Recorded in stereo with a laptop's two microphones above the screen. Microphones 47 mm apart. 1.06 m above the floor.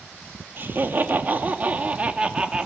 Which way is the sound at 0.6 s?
50° right (ahead or behind).